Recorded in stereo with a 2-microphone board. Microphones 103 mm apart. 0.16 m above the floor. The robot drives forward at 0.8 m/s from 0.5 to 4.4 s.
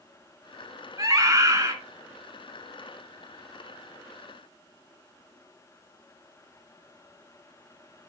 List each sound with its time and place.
1.0 s a scream: 35° right (ahead or behind), 1.8 m; by 1.8 s 30° right (ahead or behind), 2 m